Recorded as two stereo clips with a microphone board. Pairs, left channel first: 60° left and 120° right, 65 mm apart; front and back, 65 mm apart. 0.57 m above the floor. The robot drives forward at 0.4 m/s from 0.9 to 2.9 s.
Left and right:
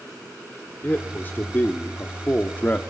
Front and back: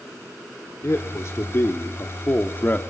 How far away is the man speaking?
About 1.8 m.